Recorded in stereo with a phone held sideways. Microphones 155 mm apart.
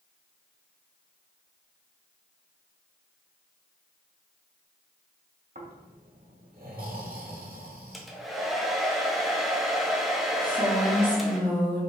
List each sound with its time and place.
5.5 s snoring: 70° right (ahead or behind), 1.1 m
7.9 s a hair dryer: centre (ahead or behind), 0.6 m
10.4 s a woman speaking: 10° left (ahead or behind), 1.2 m